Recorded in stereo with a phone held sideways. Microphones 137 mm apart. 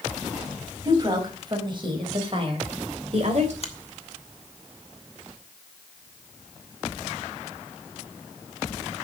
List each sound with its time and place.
0.8 s a woman speaking: 30° right (ahead or behind), 4 m; by 3.5 s 55° right (ahead or behind), 3 m
3.6 s a finger snap: 45° left (ahead or behind), 1.6 m